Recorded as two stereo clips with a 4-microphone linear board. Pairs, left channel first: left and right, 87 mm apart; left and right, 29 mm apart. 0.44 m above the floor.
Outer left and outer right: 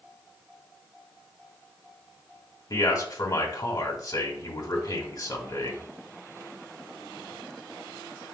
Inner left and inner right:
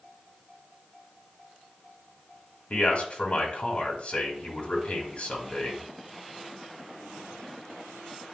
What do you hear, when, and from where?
2.7 s a man speaking: 45° left (ahead or behind), 1.9 m